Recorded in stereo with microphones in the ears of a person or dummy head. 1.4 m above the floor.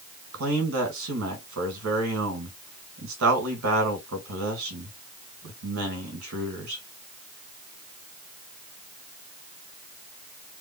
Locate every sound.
0.3 s a man speaking: 70° right (ahead or behind), 1.9 m